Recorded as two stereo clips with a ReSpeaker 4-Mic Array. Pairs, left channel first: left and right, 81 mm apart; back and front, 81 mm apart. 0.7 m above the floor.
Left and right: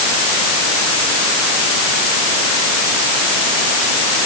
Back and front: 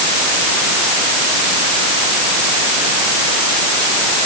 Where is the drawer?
I don't hear a drawer.